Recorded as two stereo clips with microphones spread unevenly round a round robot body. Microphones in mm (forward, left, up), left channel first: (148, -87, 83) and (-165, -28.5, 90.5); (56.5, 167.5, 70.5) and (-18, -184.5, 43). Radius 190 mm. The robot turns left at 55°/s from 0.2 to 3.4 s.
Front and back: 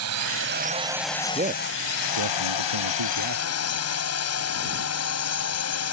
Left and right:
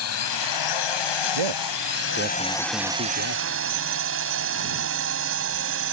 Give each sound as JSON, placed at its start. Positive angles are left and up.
{"t": 0.0, "sound": "a drone", "azimuth_deg": 125}
{"t": 1.4, "sound": "a man speaking", "azimuth_deg": -120}